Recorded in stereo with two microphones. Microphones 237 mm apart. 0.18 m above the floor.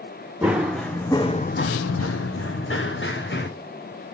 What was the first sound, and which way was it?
Running footsteps, 5° right (ahead or behind).